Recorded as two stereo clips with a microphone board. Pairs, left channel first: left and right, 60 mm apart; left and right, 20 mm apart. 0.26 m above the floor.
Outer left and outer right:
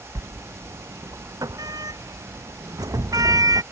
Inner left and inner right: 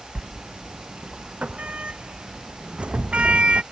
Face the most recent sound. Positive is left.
turn(degrees=-90)